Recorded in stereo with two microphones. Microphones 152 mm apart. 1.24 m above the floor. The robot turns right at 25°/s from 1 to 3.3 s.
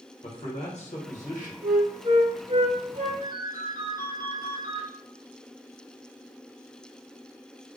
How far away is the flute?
About 1.1 m.